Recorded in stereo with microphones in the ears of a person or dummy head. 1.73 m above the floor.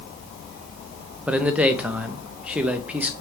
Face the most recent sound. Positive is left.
turn(degrees=-10)  # may be behind; listen again after turning